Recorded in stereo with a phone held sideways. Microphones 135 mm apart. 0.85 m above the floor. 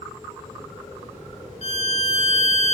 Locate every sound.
1.6 s a violin: 55° left (ahead or behind), 1.7 m